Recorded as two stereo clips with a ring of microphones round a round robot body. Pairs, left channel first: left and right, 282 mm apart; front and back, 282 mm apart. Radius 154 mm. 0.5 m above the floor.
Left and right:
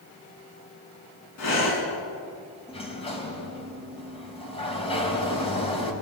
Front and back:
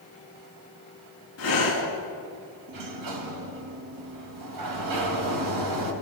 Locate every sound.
1.4 s breathing: 50° left, 5 m
2.7 s a sliding door: 160° left, 4 m